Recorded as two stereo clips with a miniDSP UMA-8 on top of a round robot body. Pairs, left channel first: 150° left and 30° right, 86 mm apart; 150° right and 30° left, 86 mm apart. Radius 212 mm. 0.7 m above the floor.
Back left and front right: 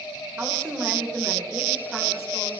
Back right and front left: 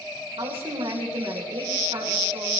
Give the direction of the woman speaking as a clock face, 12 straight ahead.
11 o'clock.